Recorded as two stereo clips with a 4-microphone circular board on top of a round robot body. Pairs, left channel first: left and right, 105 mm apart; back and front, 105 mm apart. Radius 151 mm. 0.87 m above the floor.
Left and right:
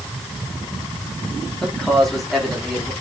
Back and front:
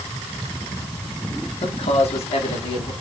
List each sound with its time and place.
1.6 s a man speaking: 175° left, 3 m; by 2.9 s straight behind, 3.5 m